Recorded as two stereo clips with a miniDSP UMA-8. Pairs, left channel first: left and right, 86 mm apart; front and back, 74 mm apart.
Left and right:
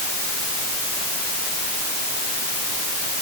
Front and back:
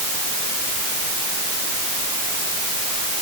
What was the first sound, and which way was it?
Only background noise.